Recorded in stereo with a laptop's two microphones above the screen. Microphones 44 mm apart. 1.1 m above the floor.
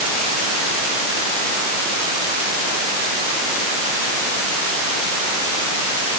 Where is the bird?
I don't hear a bird.